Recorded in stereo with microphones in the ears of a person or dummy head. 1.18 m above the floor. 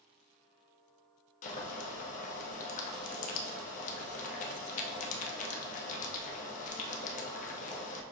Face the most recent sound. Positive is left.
turn(degrees=35)  # may be behind; listen again after turning